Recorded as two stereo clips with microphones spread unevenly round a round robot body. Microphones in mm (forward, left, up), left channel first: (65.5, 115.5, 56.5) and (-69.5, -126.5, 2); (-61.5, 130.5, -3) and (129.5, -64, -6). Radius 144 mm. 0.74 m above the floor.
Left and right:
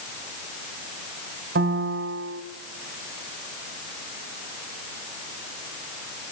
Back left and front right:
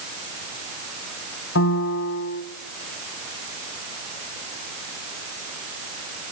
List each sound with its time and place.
1.6 s a piano: 175° right, 1.6 m